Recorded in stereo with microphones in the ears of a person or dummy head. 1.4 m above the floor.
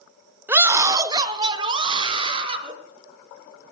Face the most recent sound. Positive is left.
turn(degrees=-35)  # may be behind; listen again after turning